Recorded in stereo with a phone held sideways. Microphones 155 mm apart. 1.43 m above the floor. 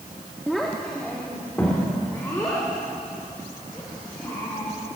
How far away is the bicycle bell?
No bicycle bell in this recording.